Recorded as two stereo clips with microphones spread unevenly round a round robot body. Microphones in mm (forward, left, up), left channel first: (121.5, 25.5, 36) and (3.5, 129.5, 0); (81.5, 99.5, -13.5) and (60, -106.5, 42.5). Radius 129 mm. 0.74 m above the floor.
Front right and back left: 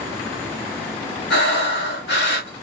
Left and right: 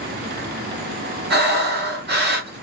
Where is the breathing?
50° right, 1.4 m.